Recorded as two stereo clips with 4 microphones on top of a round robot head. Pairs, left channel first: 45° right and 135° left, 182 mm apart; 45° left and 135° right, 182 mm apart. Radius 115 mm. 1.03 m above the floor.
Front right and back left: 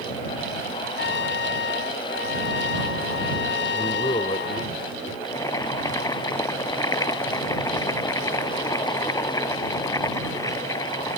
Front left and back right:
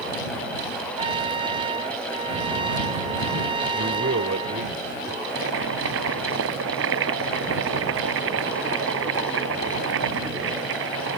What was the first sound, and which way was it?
A trumpet, 70° right.